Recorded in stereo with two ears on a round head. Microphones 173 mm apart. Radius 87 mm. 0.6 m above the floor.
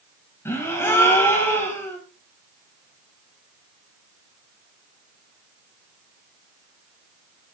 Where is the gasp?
15° left (ahead or behind), 2.5 m.